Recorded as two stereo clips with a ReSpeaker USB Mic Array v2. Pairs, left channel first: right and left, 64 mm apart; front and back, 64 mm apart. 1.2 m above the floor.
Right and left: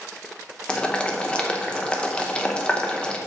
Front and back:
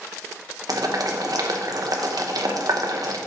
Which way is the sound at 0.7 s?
165° right.